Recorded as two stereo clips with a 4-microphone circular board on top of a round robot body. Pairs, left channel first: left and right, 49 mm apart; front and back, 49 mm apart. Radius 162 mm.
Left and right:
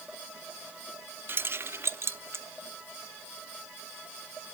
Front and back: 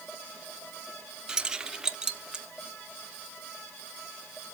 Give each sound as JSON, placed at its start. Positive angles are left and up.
{"t": 1.3, "sound": "keys jangling", "azimuth_deg": -105, "distance_m": 0.8}